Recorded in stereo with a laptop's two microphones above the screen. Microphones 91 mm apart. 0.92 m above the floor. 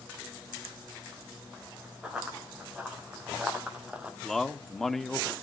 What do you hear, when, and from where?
2.0 s running footsteps: 10° right (ahead or behind), 3.5 m; by 4.1 s 15° right (ahead or behind), 1.1 m
4.2 s a man speaking: 5° left (ahead or behind), 1.2 m